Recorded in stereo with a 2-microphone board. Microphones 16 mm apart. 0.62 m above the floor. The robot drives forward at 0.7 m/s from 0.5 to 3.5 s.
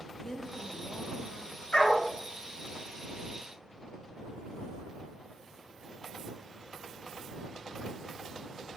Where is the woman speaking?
20° left (ahead or behind), 1.0 m; by 1.6 s 15° left (ahead or behind), 1.3 m.